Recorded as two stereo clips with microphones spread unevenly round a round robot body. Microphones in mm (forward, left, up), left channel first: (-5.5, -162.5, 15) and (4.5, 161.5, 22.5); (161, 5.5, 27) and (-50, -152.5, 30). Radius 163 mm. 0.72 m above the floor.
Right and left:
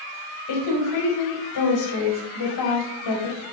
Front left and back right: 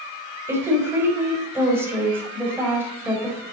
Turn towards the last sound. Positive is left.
turn(degrees=-60)